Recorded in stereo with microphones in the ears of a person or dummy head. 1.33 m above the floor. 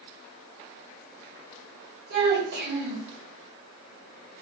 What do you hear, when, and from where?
2.1 s a child speaking: 55° right (ahead or behind), 1.3 m